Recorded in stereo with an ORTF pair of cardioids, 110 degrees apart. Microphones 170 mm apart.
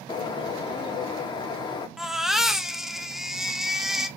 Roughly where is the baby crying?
Ahead.